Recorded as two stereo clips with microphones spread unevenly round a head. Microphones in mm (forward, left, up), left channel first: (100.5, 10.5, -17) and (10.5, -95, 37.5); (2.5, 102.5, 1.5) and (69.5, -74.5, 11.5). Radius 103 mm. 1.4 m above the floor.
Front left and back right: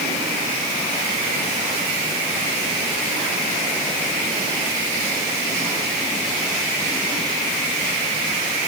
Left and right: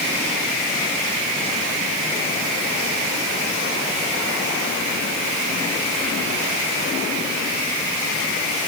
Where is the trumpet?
No trumpet in this recording.